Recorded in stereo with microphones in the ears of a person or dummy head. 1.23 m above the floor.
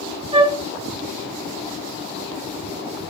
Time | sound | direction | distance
0.3 | a flute | 30° right (ahead or behind) | 2.5 m